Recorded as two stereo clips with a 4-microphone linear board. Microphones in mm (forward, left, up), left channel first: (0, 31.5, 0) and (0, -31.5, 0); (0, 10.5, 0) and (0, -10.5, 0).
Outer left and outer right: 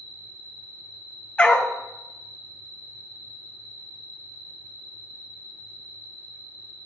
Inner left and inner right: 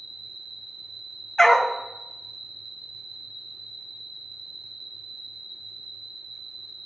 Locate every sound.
0.0 s an insect: 55° right (ahead or behind), 1.5 m
1.4 s a dog barking: 20° left (ahead or behind), 0.8 m